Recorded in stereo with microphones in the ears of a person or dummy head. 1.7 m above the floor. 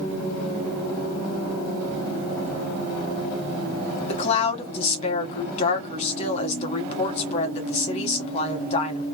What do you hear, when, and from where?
4.1 s a woman speaking: 45° left (ahead or behind), 1.2 m